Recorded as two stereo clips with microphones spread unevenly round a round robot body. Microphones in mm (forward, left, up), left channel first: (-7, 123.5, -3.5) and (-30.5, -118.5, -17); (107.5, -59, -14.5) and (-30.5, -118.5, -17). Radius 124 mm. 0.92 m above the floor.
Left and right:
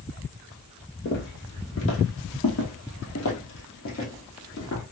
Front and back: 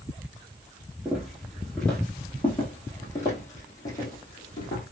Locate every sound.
1.1 s footsteps: 120° left, 1.5 m; by 4.8 s 50° left, 2.5 m